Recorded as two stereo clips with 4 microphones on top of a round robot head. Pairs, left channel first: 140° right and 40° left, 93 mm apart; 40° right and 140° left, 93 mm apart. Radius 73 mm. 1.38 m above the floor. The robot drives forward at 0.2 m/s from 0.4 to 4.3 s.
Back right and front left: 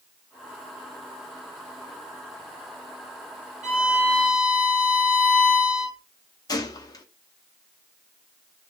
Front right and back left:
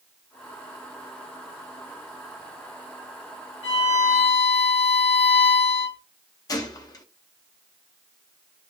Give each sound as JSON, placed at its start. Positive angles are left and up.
{"t": 3.6, "sound": "a violin", "azimuth_deg": -45, "distance_m": 2.5}
{"t": 6.5, "sound": "a gunshot", "azimuth_deg": -90, "distance_m": 0.9}